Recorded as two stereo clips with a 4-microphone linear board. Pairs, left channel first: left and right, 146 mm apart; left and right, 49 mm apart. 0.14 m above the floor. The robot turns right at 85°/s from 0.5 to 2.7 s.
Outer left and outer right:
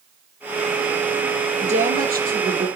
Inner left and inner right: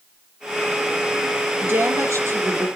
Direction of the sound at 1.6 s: 135° right.